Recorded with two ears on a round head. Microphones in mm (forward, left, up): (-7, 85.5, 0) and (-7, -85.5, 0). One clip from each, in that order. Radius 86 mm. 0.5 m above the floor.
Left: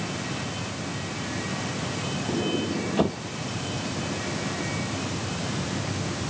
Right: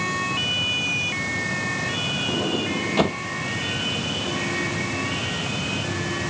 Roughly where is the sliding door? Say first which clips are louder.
Right 3 dB; right.